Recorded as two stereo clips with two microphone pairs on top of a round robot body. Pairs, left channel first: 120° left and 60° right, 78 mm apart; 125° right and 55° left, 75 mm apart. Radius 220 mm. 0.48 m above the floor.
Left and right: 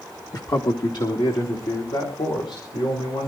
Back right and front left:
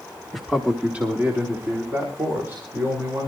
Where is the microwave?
No microwave in this recording.